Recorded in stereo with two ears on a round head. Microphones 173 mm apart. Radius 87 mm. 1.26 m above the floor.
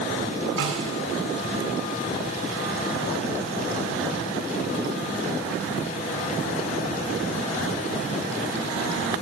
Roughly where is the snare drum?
Right.